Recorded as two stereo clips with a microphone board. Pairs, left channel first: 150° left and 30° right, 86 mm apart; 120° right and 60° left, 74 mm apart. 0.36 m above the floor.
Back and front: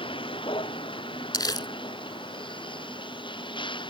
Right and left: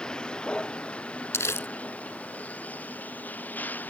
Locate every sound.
0.0 s a vehicle: 160° left; by 3.9 s 175° left
1.3 s crumpling: 170° right